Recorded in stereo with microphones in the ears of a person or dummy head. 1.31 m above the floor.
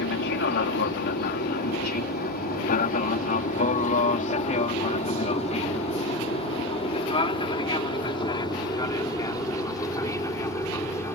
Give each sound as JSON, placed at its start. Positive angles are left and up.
{"t": 0.0, "sound": "an aircraft", "side_deg": 65}